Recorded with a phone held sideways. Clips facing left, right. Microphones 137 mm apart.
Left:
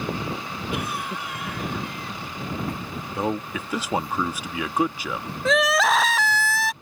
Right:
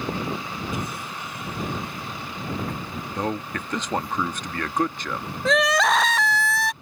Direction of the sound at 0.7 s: 70° left (ahead or behind).